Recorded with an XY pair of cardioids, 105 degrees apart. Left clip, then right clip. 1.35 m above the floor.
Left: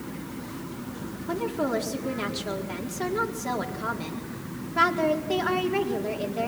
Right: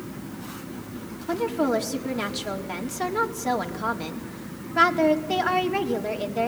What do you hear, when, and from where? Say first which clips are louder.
1.3 s a woman speaking: right 4 dB; 25° right, 4 m